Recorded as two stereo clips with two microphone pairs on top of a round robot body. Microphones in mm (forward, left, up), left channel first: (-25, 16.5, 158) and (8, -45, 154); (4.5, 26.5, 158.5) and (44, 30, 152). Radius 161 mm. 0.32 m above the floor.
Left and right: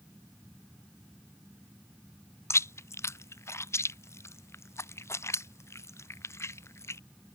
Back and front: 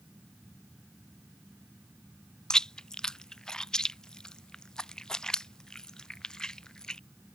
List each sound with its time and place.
2.5 s chewing: 100° left